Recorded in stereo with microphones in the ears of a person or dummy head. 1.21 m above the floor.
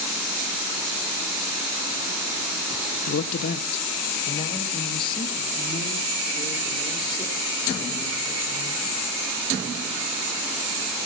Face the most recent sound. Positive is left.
turn(degrees=25)  # may be behind; listen again after turning